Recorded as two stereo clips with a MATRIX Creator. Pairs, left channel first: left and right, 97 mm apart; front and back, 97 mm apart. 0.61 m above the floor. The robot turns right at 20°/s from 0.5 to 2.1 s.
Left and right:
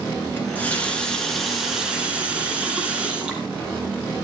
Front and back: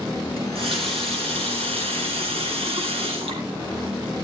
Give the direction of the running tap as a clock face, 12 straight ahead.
7 o'clock.